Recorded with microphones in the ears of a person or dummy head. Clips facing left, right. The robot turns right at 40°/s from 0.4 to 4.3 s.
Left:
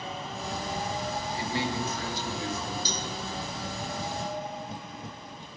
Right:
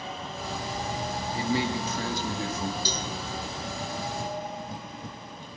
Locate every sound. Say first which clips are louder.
1.3 s a man speaking: right 5 dB; 85° right, 1.6 m; by 2.8 s 30° right, 1.6 m
2.9 s a cowbell: right 2 dB; 30° right (ahead or behind), 1.6 m; by 3.1 s 20° right (ahead or behind), 1.6 m